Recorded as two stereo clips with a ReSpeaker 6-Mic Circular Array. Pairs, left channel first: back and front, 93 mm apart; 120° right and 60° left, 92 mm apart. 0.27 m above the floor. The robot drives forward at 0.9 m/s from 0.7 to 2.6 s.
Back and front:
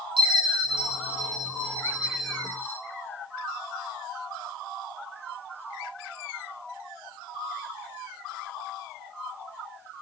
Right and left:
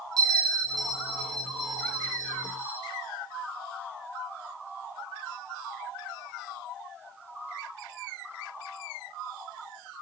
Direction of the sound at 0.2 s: 20° left.